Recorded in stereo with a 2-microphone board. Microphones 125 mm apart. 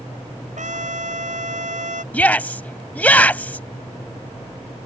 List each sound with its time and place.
0.6 s a trumpet: 75° right (ahead or behind)
2.1 s a shout: 15° left (ahead or behind)